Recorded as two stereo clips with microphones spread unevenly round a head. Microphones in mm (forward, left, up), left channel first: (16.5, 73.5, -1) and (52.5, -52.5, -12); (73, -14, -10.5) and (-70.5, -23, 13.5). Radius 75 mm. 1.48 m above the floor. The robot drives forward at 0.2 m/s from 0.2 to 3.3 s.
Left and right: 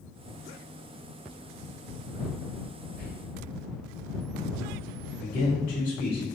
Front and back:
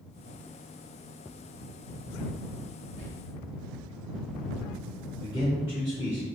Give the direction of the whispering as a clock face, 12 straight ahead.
7 o'clock.